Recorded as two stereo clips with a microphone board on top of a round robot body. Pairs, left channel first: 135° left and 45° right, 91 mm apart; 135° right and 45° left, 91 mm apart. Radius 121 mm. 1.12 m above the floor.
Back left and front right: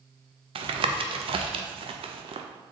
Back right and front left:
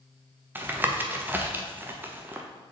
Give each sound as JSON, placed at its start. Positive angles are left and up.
{"t": 0.6, "sound": "tapping", "azimuth_deg": -25, "distance_m": 0.8}